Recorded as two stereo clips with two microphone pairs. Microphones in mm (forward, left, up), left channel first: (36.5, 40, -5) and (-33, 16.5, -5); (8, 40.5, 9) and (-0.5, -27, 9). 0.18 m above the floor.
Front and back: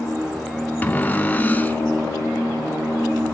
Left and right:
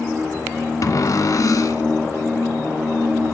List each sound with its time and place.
0.8 s a cupboard door: 75° left, 0.7 m